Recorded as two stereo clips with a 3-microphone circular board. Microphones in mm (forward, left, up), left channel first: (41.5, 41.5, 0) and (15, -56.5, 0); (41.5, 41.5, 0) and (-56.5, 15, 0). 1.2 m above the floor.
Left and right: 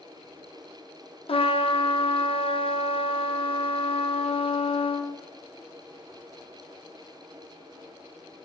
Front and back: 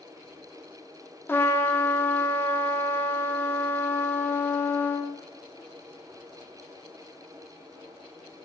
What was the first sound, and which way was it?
A trumpet, 80° left.